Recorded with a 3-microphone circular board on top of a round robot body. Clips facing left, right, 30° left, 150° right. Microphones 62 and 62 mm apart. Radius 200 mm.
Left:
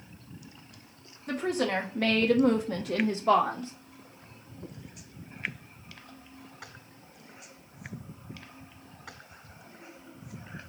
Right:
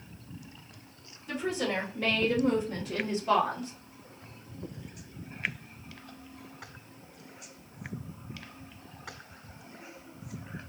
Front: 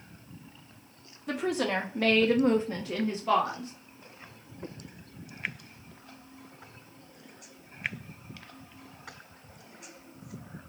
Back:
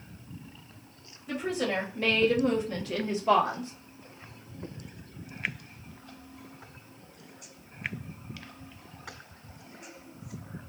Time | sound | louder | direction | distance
1.3 | a woman speaking | left 3 dB, front 1 dB | 50° left | 1.1 m